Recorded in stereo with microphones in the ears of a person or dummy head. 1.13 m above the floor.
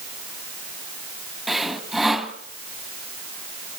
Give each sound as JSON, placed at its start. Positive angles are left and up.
{"t": 1.5, "sound": "sawing", "side_deg": 5, "distance_m": 2.0}